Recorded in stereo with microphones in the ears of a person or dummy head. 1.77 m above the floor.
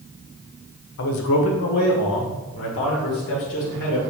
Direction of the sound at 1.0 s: 60° left (ahead or behind).